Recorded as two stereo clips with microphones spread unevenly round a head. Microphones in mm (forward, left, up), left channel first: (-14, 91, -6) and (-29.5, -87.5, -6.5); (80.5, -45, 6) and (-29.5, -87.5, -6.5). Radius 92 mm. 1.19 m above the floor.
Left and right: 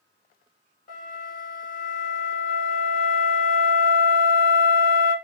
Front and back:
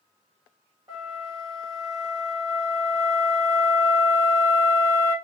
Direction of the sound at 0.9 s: 130° left.